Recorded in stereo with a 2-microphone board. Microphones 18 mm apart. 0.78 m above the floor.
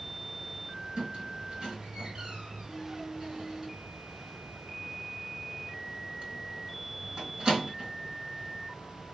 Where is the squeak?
50° right (ahead or behind), 3 m.